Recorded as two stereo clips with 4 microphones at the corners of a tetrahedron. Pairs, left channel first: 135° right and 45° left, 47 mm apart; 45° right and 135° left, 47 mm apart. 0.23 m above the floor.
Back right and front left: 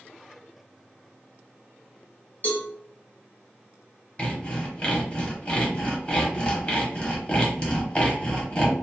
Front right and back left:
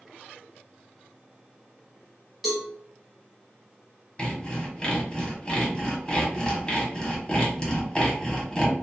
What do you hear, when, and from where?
2.4 s a cowbell: 135° right, 1.0 m
4.2 s sawing: 95° right, 0.9 m